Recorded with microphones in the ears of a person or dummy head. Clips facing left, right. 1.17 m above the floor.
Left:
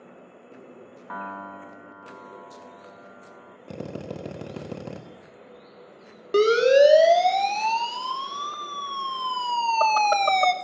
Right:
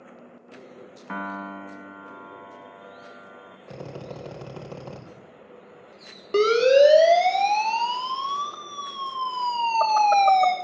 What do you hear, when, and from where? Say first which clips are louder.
1.1 s a piano: right 4 dB; 40° right (ahead or behind), 0.9 m
3.7 s a drill: left 3 dB; 25° left (ahead or behind), 1.5 m
6.3 s a siren: even; 15° left (ahead or behind), 3 m; by 10.5 s 50° left (ahead or behind), 1.2 m